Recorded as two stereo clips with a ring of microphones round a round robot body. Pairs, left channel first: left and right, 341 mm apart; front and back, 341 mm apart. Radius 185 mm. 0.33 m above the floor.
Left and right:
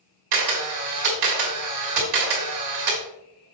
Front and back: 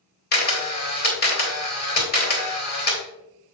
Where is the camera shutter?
60° right, 2.5 m.